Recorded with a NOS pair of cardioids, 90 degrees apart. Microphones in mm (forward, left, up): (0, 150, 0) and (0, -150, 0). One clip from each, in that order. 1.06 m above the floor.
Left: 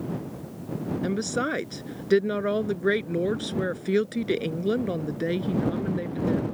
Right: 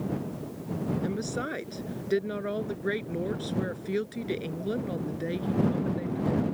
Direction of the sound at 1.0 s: 45° left.